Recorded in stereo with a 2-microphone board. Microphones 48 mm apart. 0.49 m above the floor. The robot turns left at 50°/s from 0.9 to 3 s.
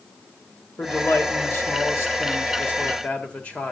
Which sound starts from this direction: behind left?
A man speaking, at 0.8 s.